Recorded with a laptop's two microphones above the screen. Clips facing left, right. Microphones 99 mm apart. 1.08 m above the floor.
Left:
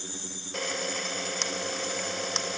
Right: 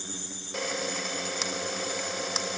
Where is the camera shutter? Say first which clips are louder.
Right 1 dB; 5° right (ahead or behind), 0.9 m.